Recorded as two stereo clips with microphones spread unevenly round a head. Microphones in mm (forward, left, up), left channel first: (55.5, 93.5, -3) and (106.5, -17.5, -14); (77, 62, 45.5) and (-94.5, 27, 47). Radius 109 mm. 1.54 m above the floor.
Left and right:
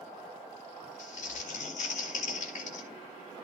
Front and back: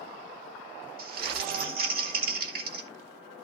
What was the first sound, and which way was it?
Crumpling, 155° left.